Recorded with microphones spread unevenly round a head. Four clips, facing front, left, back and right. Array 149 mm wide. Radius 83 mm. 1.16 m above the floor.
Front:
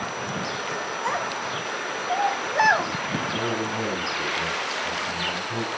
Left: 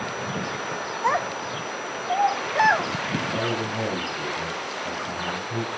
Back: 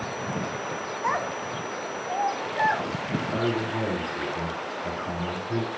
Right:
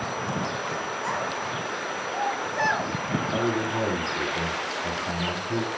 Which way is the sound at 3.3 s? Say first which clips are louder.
Right 3 dB, back 3 dB; 110° right.